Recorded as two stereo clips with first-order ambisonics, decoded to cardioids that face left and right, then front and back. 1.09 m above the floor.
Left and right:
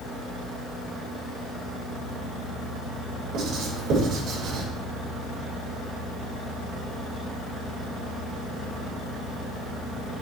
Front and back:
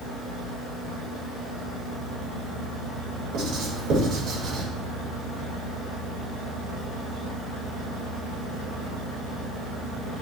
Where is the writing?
140° right, 3.5 m.